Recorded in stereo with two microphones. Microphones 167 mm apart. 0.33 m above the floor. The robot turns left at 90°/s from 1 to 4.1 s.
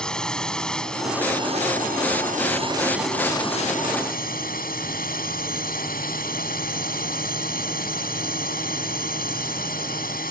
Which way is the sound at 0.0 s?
5° left.